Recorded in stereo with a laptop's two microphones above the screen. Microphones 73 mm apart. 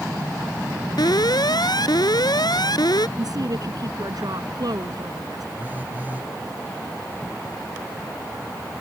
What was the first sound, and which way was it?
An alarm, 70° left (ahead or behind).